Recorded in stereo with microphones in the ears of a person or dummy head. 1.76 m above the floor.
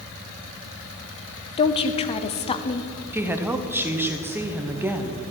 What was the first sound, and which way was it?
A woman speaking, 30° left (ahead or behind).